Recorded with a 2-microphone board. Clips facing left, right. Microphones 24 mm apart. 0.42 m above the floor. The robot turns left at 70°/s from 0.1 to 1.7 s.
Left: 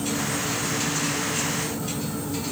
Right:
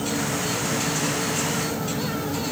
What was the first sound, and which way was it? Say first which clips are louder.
An insect: right 1 dB; 20° right.